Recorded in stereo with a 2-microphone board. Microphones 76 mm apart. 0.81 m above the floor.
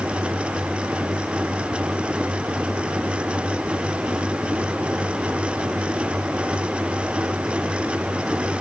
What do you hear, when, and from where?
Only background noise.